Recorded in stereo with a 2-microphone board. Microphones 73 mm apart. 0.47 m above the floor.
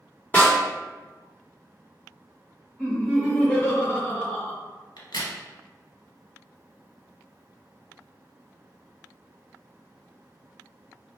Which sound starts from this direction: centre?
Laughter, at 2.8 s.